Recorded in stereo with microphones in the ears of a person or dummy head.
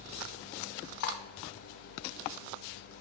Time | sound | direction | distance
1.0 | cutlery clinking | 65° left (ahead or behind) | 1.5 m